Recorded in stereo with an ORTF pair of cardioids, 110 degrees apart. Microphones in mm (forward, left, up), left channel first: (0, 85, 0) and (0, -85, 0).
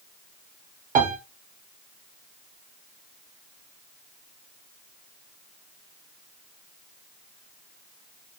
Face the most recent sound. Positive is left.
turn(degrees=-55)